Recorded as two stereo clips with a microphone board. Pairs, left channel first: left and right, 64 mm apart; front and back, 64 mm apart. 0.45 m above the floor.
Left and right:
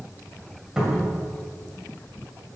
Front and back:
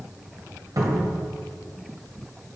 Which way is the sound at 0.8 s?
170° right.